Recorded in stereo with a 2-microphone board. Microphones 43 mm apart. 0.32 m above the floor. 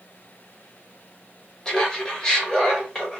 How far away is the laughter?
About 1.2 m.